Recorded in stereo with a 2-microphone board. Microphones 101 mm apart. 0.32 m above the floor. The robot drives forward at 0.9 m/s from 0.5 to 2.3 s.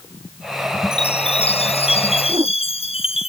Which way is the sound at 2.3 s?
40° right (ahead or behind).